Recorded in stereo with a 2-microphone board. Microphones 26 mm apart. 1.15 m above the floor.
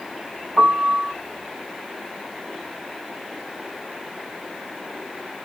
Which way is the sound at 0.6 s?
35° left (ahead or behind).